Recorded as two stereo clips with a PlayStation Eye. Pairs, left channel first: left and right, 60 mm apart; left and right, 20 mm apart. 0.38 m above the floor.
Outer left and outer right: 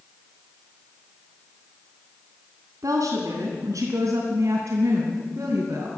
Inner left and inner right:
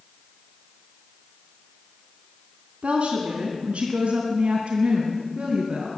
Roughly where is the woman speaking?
Right.